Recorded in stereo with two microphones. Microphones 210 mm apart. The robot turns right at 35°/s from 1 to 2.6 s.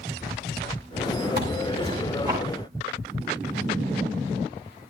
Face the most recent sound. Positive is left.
turn(degrees=-10)